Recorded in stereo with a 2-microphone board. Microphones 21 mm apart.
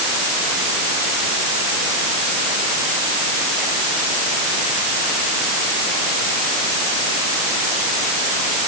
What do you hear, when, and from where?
Only background noise.